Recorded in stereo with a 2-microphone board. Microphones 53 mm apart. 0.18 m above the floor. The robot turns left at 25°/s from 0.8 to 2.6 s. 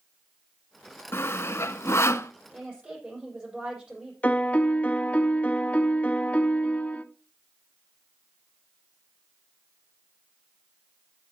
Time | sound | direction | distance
1.1 | sawing | 50° left (ahead or behind) | 0.6 m
2.5 | a woman speaking | 15° right (ahead or behind) | 7.5 m
4.2 | a piano | 25° left (ahead or behind) | 0.7 m